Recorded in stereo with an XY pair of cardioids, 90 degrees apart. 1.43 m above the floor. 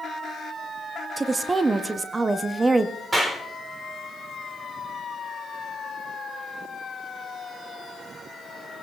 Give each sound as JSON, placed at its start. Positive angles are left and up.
{"t": 1.2, "sound": "a woman speaking", "azimuth_deg": -30, "distance_m": 0.7}
{"t": 3.1, "sound": "a clap", "azimuth_deg": -35, "distance_m": 3.0}